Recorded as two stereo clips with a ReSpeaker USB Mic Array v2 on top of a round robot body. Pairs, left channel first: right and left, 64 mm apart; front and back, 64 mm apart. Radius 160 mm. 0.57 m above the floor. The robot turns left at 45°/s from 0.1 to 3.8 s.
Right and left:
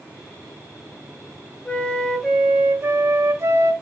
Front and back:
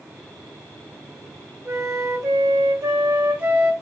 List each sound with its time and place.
1.6 s a flute: 160° right, 1.1 m; by 3.7 s 105° left, 1.1 m